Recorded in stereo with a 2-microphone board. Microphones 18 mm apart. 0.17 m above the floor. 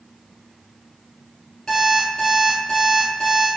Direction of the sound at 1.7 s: 45° left (ahead or behind).